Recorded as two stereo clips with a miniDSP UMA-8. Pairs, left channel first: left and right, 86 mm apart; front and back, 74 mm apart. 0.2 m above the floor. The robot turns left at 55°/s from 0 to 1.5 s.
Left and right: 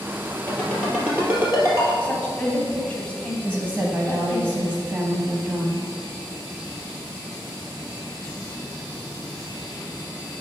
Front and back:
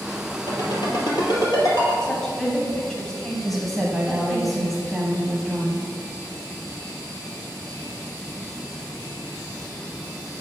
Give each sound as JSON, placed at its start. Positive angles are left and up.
{"t": 0.5, "sound": "a ringtone", "azimuth_deg": 25, "distance_m": 2.5}
{"t": 2.0, "sound": "a woman speaking", "azimuth_deg": 65, "distance_m": 1.3}
{"t": 3.4, "sound": "a woman speaking", "azimuth_deg": -95, "distance_m": 1.0}